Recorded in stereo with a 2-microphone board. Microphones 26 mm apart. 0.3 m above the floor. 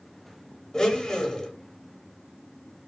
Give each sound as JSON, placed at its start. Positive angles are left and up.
{"t": 0.7, "sound": "a blender", "side_deg": 25, "distance_m": 0.7}